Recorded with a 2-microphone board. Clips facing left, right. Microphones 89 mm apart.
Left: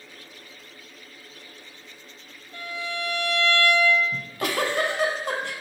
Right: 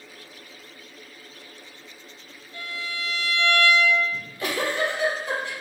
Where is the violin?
55° left (ahead or behind), 1.3 m.